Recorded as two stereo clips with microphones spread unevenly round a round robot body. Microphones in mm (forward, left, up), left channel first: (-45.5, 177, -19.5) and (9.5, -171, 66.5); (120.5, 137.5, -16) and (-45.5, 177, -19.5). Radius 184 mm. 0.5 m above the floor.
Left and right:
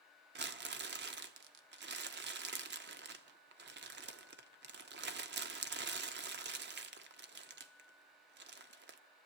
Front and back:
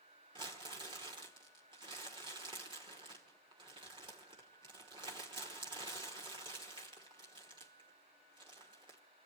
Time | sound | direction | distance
0.3 | crumpling | 145° right | 1.1 m